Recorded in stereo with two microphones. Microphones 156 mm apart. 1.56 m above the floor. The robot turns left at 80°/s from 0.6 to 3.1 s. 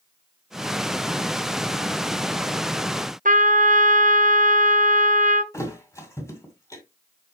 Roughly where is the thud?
Centre.